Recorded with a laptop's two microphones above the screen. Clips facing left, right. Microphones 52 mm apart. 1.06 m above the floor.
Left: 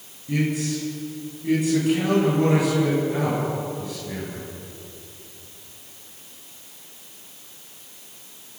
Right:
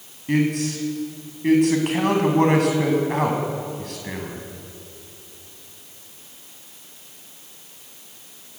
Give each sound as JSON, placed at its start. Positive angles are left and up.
{"t": 0.3, "sound": "a man speaking", "side_deg": -60, "distance_m": 7.0}